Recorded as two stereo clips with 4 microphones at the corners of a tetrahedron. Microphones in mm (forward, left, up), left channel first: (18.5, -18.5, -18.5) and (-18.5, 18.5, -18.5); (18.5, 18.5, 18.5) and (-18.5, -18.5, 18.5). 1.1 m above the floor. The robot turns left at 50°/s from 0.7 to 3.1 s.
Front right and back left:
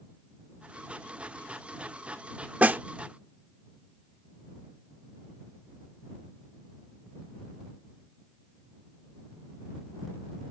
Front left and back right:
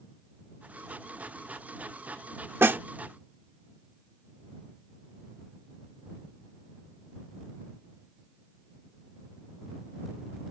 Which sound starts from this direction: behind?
A snare drum, at 2.6 s.